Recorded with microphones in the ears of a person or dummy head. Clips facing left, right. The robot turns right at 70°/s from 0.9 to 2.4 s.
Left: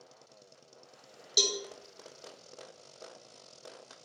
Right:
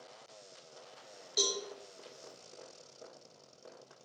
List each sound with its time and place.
1.4 s a cowbell: 35° left (ahead or behind), 0.7 m; by 1.6 s 45° left (ahead or behind), 0.7 m